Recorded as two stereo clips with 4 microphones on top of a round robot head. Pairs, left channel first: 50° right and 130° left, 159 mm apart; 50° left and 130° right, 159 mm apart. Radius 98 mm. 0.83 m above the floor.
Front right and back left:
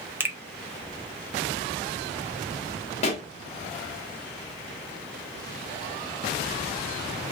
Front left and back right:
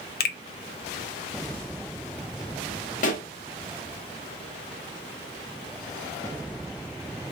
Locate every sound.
0.2 s a finger snap: 55° left, 0.6 m
3.0 s a pop: 5° left, 0.6 m